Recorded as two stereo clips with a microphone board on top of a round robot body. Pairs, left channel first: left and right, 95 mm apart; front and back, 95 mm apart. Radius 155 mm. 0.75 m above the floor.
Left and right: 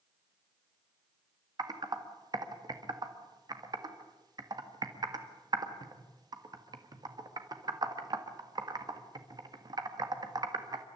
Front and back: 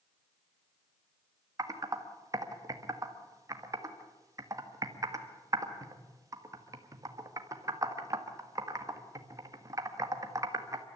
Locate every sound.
1.6 s typing on a keyboard: 130° right, 2 m